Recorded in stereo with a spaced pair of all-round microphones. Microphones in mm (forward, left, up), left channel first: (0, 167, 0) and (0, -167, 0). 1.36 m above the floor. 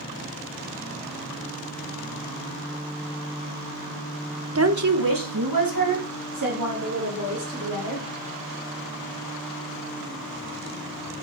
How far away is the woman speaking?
About 1.1 m.